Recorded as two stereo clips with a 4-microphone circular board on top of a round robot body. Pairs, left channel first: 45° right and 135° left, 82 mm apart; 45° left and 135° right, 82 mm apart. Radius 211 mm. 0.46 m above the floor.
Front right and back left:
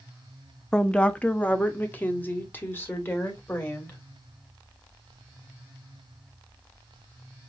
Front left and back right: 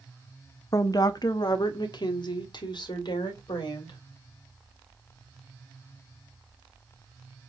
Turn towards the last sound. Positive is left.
turn(degrees=20)